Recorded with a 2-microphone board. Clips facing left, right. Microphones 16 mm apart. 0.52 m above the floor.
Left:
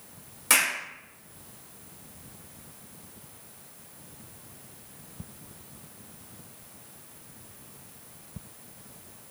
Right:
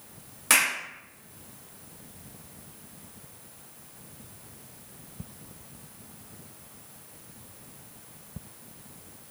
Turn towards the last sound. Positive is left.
turn(degrees=-10)  # may be behind; listen again after turning